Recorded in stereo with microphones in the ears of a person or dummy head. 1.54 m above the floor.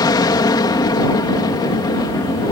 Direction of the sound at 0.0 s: 20° left (ahead or behind).